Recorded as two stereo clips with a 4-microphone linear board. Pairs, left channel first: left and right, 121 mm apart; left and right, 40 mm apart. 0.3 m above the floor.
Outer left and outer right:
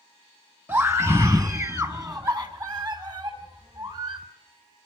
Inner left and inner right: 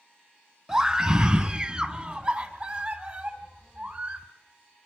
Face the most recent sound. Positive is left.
turn(degrees=-40)  # may be behind; listen again after turning